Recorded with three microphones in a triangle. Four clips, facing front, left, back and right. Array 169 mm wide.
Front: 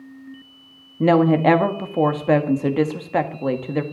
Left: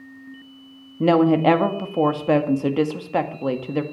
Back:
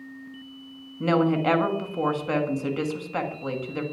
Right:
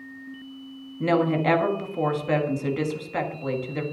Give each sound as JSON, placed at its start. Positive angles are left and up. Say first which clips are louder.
{"t": 1.0, "sound": "a woman speaking", "louder": "left 6 dB, front 6 dB", "azimuth_deg": 40, "distance_m": 1.5}